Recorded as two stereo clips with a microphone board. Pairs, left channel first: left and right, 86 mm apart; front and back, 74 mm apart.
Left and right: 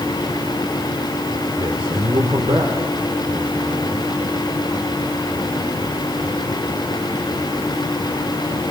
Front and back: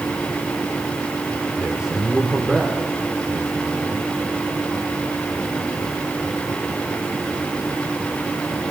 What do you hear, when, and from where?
1.6 s a man speaking: 100° right, 2.5 m